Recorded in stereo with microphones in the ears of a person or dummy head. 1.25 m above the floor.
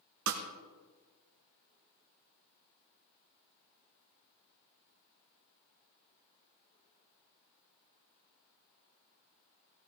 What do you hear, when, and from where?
0.3 s a snare drum: 50° right (ahead or behind), 1.5 m